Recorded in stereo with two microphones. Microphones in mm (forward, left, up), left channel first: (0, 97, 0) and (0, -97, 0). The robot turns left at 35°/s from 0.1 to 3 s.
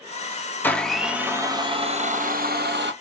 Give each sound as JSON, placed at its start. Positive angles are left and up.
{"t": 0.6, "sound": "a blender", "azimuth_deg": 10, "distance_m": 0.8}